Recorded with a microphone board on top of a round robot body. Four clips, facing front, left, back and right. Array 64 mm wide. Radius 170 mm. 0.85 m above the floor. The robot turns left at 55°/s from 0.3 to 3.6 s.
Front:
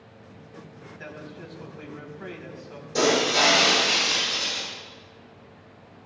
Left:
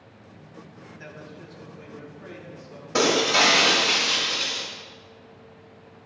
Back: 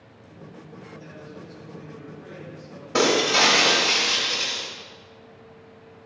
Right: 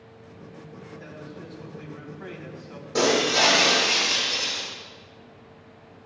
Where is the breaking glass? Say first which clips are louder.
Left 1 dB, back 1 dB; 150° left, 6 m; by 4.6 s 115° left, 6 m.